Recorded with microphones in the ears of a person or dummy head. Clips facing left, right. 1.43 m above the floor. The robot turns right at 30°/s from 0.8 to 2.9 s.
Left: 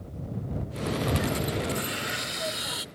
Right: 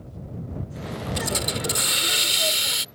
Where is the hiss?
100° right; by 2.9 s 50° right.